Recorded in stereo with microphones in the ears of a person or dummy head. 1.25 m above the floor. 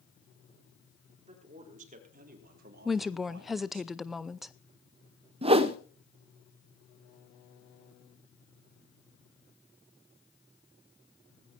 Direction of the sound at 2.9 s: 5° right (ahead or behind).